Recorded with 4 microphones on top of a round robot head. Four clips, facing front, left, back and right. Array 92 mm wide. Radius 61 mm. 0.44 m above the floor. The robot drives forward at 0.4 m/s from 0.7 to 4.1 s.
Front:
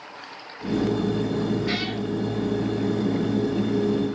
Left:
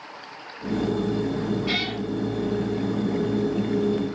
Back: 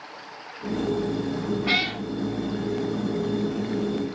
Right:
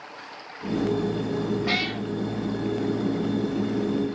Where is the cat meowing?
145° right, 1.7 m; by 2.0 s 150° right, 1.8 m.